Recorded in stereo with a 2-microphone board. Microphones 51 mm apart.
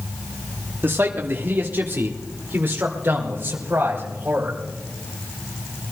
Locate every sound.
0.8 s a man speaking: 45° right (ahead or behind), 1.1 m; by 4.6 s 40° right (ahead or behind), 3 m